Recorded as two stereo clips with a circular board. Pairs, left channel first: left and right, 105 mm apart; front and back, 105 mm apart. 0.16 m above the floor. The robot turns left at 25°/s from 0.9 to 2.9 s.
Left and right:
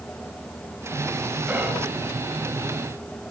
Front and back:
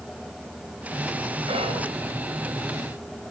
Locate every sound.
1.5 s whispering: 165° right, 2.5 m; by 1.9 s 175° right, 2.5 m